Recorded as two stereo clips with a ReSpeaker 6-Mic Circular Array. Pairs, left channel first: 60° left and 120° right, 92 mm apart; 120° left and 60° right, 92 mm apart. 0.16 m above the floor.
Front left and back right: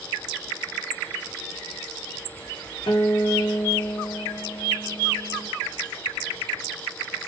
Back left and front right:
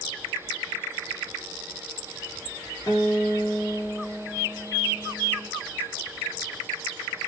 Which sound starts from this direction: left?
A guitar, at 2.9 s.